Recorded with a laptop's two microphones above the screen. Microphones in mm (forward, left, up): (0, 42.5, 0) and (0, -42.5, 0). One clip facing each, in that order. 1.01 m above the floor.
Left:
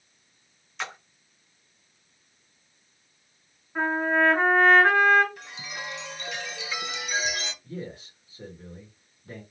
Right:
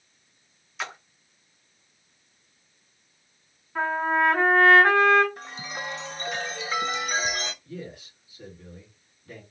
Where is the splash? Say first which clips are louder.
Right 1 dB; centre (ahead or behind), 0.6 m.